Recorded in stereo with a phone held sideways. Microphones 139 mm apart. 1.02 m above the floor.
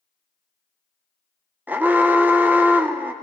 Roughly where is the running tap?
I don't hear a running tap.